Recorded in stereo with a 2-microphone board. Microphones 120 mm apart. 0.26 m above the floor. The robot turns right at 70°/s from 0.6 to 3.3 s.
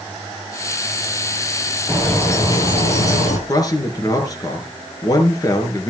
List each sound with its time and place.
1.9 s a bird: 5° right, 5 m; by 3.4 s 95° left, 5 m
3.5 s a man speaking: 30° left (ahead or behind), 5 m